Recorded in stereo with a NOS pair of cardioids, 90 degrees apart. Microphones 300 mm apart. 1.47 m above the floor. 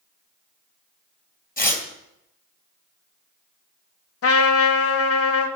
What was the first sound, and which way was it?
Tearing paper, 25° left.